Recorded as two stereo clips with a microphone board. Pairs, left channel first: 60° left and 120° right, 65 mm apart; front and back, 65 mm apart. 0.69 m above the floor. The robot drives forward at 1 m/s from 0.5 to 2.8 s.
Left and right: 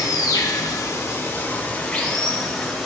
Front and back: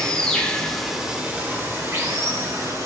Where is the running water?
75° left, 1.3 m; by 2.9 s 150° left, 2.5 m.